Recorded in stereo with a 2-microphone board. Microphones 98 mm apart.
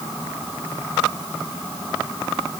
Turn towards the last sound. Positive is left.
No sound to turn to.